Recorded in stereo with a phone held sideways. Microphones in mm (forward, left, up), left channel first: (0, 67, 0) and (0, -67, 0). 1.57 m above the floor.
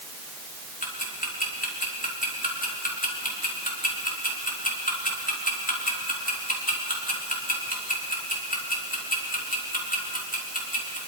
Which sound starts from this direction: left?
Ticking, at 0.8 s.